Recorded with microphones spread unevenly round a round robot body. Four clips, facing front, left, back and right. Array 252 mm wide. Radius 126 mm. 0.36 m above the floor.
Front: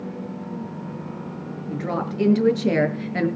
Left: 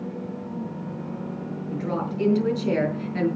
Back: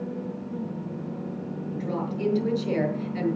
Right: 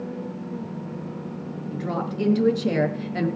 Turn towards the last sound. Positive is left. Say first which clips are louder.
# even, front 4 dB
turn(degrees=-20)